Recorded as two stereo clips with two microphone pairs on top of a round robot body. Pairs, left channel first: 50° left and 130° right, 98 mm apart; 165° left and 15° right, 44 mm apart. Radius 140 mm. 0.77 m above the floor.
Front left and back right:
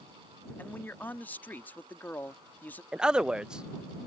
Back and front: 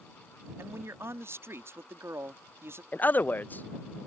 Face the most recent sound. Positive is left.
turn(degrees=135)